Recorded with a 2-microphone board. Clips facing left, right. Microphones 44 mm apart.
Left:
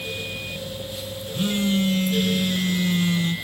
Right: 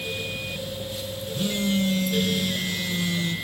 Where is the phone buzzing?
45° left (ahead or behind), 1.8 m.